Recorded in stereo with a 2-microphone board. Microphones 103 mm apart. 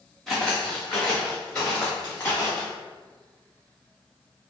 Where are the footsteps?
5° left (ahead or behind), 1.7 m; by 2.7 s 20° left (ahead or behind), 3 m.